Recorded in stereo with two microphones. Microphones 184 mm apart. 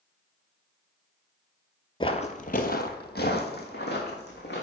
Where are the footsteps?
25° left (ahead or behind), 0.5 m; by 4.6 s 65° left (ahead or behind), 1.9 m.